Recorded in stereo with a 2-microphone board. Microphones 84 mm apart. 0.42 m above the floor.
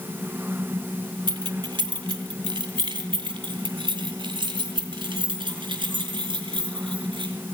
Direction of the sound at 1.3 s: 65° right (ahead or behind).